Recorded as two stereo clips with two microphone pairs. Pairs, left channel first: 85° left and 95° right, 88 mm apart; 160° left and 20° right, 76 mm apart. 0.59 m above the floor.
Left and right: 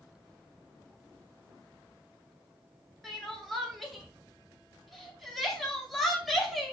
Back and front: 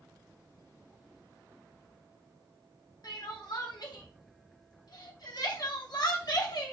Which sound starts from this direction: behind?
Crying, at 3.0 s.